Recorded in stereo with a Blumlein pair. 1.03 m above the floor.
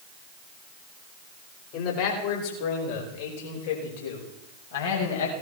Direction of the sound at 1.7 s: 45° left.